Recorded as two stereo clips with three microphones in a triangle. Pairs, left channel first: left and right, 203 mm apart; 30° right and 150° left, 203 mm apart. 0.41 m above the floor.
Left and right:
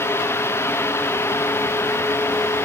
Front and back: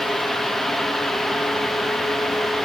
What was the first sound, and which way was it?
Only background noise.